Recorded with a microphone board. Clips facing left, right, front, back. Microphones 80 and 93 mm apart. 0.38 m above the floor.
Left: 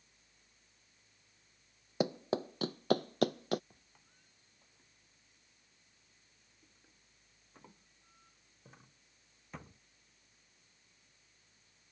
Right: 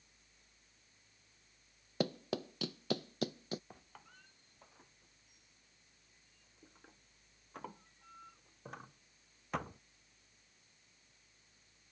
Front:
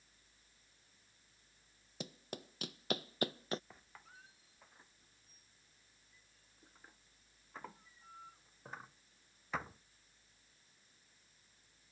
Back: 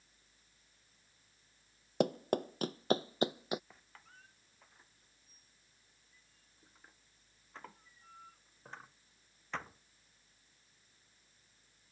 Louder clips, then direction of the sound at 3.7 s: Right 10 dB, front 1 dB; 85° right.